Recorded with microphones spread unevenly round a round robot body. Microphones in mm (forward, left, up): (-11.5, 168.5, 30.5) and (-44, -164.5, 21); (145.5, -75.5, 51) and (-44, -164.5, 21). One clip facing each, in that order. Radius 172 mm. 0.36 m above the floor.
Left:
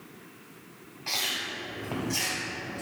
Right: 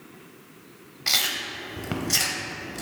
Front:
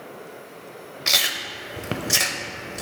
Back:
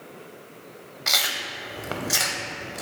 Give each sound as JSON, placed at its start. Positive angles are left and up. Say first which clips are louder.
{"t": 1.1, "sound": "chewing", "louder": "right 2 dB, even", "azimuth_deg": -40, "distance_m": 0.6}